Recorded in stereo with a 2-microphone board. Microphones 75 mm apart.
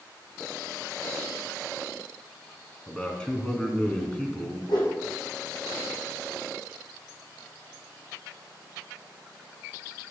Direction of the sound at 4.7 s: 75° left (ahead or behind).